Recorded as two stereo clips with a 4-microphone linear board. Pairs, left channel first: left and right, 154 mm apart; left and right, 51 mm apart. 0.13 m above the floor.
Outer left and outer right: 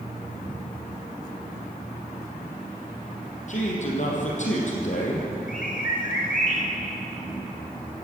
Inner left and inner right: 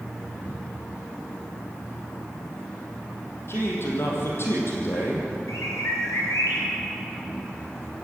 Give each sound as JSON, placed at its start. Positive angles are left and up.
{"t": 3.5, "sound": "a man speaking", "side_deg": 55, "distance_m": 4.5}
{"t": 5.5, "sound": "a bird", "side_deg": 70, "distance_m": 5.0}